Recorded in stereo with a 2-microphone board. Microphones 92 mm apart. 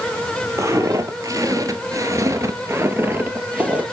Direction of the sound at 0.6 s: 35° right (ahead or behind).